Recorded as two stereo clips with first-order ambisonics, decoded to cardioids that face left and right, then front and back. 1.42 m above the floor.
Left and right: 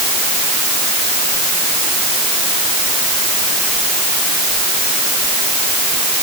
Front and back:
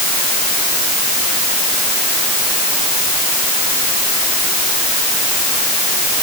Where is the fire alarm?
I don't hear a fire alarm.